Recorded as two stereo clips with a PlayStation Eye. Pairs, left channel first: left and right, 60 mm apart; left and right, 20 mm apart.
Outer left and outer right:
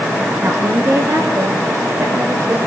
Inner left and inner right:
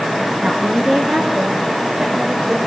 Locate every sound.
0.4 s a woman speaking: 30° right (ahead or behind), 8.5 m; by 2.6 s 40° right (ahead or behind), 11 m